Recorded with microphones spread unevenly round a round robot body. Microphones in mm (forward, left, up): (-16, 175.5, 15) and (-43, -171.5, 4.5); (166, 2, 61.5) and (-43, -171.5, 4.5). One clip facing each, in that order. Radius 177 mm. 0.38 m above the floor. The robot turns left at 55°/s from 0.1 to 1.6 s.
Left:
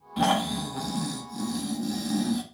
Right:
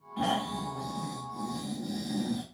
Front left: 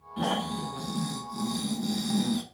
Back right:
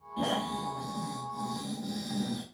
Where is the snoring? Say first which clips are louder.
Left 6 dB, front left 2 dB; 105° left, 0.9 m; by 2.4 s 30° left, 0.9 m.